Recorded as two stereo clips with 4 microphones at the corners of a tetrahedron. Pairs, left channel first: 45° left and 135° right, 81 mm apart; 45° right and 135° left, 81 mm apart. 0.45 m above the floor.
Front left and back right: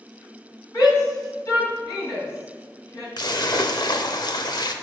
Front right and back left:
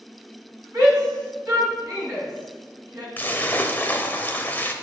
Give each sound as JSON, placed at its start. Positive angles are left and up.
{"t": 0.7, "sound": "a shout", "azimuth_deg": 85, "distance_m": 3.0}
{"t": 3.2, "sound": "a splash", "azimuth_deg": 20, "distance_m": 0.6}